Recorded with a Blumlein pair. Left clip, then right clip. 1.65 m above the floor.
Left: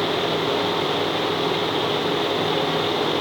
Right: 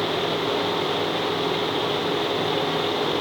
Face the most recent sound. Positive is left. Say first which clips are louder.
# left 2 dB
turn(degrees=5)